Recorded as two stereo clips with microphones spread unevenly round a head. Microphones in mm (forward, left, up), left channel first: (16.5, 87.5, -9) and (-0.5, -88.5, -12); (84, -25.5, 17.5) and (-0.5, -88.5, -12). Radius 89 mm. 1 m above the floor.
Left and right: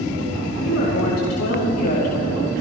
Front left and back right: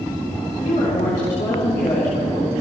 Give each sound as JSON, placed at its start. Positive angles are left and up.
{"t": 0.6, "sound": "a woman speaking", "azimuth_deg": 80, "distance_m": 4.0}